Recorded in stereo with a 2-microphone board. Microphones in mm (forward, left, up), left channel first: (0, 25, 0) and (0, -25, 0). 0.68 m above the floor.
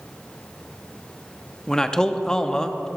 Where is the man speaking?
15° left (ahead or behind), 0.8 m.